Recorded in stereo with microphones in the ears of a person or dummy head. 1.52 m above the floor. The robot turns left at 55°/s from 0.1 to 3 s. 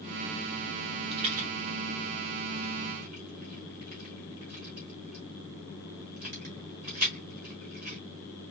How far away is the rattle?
About 1.5 m.